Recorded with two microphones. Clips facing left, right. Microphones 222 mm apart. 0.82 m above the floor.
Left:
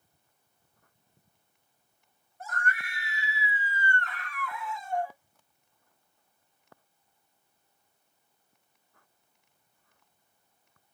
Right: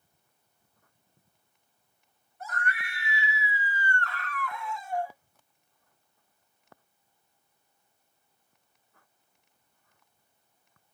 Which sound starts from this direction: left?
A scream, at 2.4 s.